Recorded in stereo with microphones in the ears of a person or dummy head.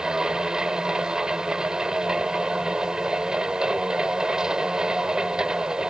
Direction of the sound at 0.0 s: 10° right (ahead or behind).